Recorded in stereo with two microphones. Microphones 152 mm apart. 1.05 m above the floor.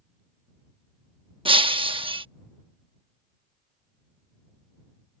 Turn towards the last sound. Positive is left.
turn(degrees=-35)  # may be behind; listen again after turning